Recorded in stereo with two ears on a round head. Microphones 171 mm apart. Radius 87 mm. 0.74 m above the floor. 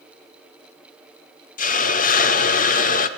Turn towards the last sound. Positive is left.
turn(degrees=45)  # may be behind; listen again after turning